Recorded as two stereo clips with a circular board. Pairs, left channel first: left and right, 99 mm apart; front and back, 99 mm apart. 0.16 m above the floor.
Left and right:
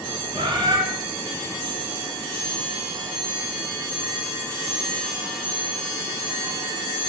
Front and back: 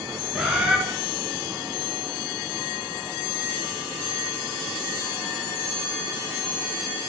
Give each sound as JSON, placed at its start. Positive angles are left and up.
{"t": 0.3, "sound": "a bird", "azimuth_deg": -95, "distance_m": 1.3}